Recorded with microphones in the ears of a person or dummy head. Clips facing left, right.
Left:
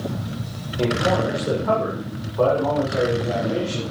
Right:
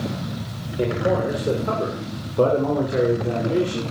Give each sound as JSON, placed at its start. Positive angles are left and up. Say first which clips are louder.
{"t": 0.8, "sound": "a man speaking", "louder": "even", "side_deg": -20, "distance_m": 7.0}